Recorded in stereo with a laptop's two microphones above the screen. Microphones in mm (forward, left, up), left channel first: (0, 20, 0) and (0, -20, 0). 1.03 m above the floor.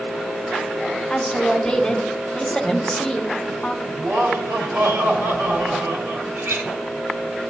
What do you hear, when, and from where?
1.1 s a woman speaking: 30° left (ahead or behind), 1.2 m
4.0 s laughter: 60° right (ahead or behind), 3 m
6.3 s a clink: 70° right (ahead or behind), 4.5 m